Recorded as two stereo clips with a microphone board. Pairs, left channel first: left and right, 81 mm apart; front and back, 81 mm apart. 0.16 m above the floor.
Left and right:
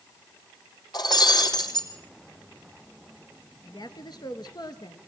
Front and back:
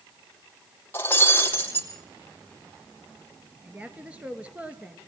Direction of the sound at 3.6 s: 110° left.